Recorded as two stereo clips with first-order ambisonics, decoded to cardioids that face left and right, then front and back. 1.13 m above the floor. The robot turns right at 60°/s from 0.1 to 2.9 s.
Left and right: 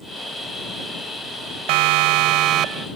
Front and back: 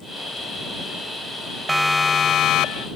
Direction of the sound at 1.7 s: 95° right.